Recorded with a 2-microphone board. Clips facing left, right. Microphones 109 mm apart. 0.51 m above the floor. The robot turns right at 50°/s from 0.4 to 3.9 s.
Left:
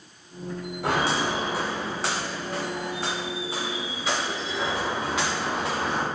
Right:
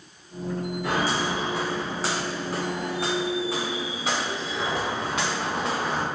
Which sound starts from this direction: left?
Footsteps, at 0.8 s.